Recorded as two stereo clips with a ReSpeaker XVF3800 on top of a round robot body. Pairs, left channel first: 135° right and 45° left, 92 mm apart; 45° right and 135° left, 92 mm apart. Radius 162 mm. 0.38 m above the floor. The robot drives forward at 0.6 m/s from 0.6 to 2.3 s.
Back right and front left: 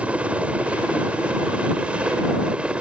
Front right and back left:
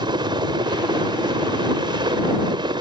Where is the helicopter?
120° left.